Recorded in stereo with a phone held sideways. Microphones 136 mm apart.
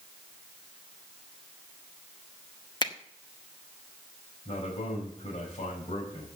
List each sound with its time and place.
2.8 s a finger snap: 35° left (ahead or behind), 0.9 m
4.5 s a man speaking: 45° left (ahead or behind), 5 m